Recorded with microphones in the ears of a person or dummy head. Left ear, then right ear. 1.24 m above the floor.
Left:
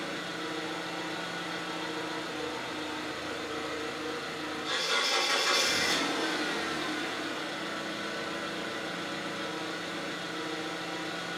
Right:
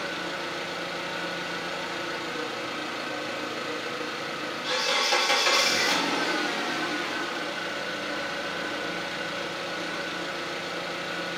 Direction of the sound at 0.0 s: 45° right (ahead or behind).